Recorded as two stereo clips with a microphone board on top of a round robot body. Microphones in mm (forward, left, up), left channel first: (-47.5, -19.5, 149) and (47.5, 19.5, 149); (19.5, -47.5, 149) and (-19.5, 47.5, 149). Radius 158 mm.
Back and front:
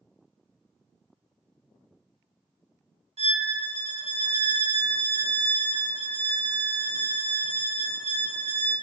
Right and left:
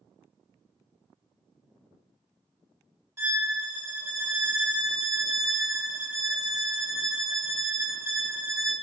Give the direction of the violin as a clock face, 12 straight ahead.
10 o'clock.